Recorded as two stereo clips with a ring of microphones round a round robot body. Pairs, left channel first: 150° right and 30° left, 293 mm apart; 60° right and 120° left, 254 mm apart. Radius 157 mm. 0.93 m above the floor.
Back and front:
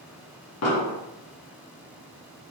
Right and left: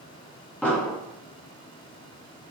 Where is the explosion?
145° right, 1.1 m.